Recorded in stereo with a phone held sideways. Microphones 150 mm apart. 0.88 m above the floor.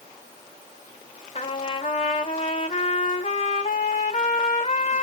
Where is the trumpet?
45° left (ahead or behind), 1.2 m.